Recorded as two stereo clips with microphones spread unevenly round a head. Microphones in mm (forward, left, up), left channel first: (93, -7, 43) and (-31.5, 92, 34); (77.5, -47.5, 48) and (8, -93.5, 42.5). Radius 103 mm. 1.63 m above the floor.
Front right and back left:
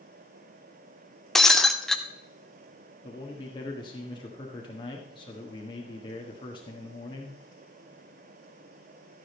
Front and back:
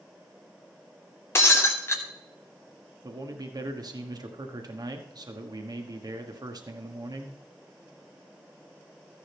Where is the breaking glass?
40° left, 0.8 m.